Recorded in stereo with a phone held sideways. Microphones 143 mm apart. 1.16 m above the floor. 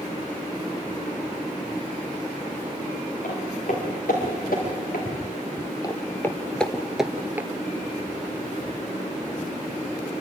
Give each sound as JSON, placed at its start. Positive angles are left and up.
{"t": 3.2, "sound": "footsteps", "side_deg": 65, "distance_m": 7.5}
{"t": 5.8, "sound": "footsteps", "side_deg": 25, "distance_m": 1.2}